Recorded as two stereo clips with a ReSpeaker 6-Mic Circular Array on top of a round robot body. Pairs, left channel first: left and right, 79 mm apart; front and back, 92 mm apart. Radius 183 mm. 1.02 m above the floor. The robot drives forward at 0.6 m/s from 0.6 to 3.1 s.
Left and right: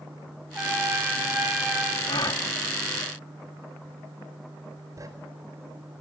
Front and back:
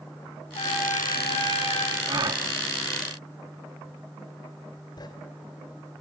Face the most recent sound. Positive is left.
turn(degrees=-45)